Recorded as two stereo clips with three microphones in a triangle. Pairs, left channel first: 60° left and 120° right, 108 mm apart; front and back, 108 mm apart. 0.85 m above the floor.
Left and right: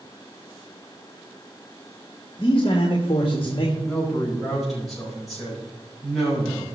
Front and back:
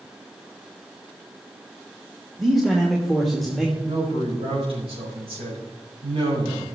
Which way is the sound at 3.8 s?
150° left.